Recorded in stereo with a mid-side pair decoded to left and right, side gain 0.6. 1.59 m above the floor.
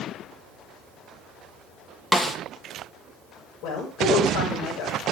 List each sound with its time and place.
2.1 s a snare drum: 10° left, 1.9 m
3.6 s a woman speaking: 55° left, 6 m